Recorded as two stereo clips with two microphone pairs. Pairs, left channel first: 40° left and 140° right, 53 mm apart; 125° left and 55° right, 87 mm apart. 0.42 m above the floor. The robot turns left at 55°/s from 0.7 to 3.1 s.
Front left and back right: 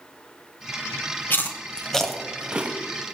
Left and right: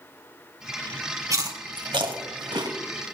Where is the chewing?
10° right, 1.3 m; by 2.8 s 90° right, 1.3 m.